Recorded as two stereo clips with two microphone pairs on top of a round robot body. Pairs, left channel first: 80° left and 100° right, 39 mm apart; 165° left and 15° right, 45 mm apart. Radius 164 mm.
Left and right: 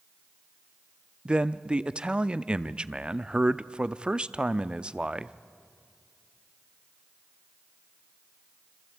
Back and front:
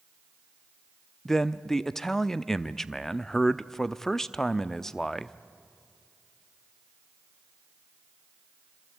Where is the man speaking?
140° right, 0.8 m.